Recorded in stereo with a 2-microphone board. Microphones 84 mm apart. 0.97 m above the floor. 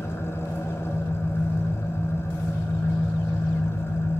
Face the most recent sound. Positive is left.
turn(degrees=30)  # may be behind; listen again after turning